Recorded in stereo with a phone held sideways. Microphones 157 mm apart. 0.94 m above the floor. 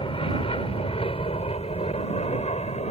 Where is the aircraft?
35° left (ahead or behind); by 2.9 s 40° left (ahead or behind).